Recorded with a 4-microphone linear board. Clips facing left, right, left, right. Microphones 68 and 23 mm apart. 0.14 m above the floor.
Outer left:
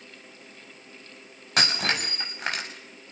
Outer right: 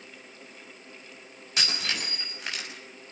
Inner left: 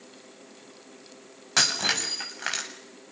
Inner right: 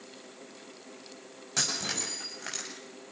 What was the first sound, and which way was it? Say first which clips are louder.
Breaking glass: outer left 6 dB, inner left 8 dB; 60° left (ahead or behind).